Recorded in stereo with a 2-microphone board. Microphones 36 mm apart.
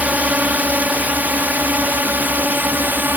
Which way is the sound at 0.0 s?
45° right (ahead or behind).